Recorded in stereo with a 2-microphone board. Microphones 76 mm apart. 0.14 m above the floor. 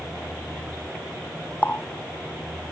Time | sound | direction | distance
1.6 | a running tap | 25° left (ahead or behind) | ?